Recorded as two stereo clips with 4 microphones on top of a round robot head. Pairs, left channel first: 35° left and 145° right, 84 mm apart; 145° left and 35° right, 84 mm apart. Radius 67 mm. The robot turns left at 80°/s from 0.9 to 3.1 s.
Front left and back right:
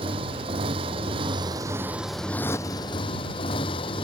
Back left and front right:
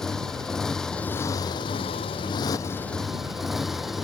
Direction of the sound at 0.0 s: 135° right.